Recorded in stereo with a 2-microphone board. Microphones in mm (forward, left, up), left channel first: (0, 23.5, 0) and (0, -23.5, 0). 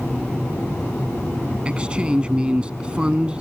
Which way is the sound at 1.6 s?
20° right (ahead or behind).